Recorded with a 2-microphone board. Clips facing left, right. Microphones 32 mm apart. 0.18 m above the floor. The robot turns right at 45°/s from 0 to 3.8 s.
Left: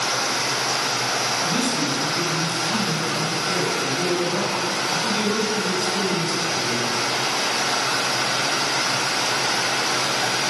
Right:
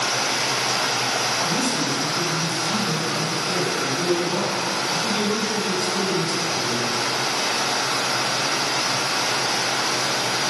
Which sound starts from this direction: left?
A man speaking, at 1.4 s.